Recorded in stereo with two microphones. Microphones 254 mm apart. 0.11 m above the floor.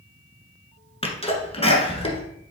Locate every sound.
1.0 s a sneeze: 25° left (ahead or behind), 1.4 m